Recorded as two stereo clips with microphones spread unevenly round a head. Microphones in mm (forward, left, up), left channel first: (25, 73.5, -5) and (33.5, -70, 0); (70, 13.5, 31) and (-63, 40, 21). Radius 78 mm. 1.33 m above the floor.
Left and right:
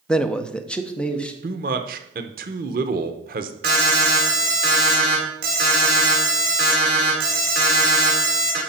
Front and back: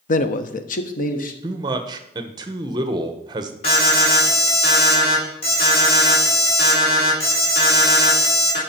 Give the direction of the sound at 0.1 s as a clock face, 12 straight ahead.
12 o'clock.